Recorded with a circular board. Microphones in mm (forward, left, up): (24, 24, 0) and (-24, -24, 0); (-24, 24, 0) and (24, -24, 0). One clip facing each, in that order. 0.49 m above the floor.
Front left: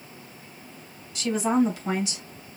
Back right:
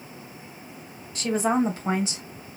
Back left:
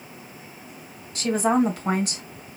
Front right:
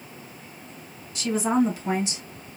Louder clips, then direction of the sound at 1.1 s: Even, back left 2 dB; 175° left.